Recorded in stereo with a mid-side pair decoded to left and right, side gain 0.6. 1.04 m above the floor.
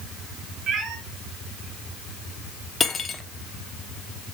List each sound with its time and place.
0.7 s a cat meowing: 50° right, 3.5 m
2.8 s cutlery clinking: 30° left, 1.0 m